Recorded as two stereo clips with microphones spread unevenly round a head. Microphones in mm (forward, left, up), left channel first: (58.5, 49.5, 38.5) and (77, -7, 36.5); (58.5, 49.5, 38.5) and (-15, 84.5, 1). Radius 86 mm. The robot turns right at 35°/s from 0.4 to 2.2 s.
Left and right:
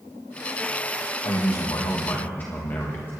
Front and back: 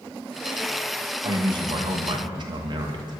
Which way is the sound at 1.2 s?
145° left.